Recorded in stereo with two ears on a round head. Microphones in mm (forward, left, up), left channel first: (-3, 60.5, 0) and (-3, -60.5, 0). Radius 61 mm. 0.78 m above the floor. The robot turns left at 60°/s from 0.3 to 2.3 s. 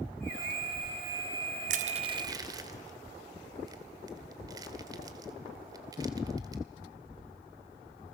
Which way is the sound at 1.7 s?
65° right (ahead or behind).